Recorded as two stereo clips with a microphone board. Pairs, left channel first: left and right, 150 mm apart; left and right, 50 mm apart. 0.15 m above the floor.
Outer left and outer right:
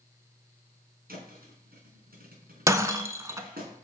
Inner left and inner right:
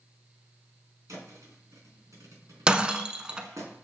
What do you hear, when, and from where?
1.1 s a thud: 85° right, 3 m
2.7 s breaking glass: 20° right (ahead or behind), 0.5 m